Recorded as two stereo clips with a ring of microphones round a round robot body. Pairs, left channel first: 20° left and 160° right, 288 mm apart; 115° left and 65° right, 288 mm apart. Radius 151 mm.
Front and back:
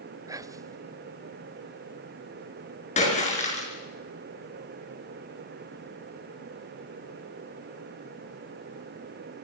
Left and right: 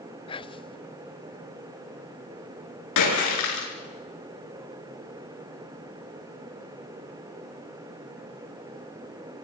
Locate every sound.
0.3 s whispering: 145° left, 0.7 m
3.0 s a splash: 90° left, 7 m